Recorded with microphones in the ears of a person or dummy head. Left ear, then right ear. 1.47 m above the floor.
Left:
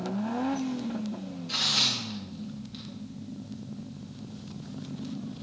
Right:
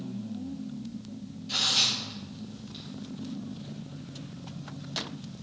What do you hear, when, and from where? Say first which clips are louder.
1.5 s tearing paper: even; 15° left (ahead or behind), 1.8 m